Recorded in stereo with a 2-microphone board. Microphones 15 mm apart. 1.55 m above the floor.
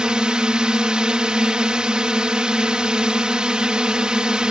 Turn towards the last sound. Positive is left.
turn(degrees=-65)  # may be behind; listen again after turning